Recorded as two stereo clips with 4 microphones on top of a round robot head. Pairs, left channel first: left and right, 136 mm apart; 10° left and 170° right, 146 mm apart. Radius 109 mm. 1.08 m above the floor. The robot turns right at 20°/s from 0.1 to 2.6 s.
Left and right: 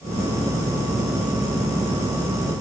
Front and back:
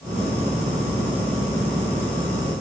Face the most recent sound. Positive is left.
No sound to turn to.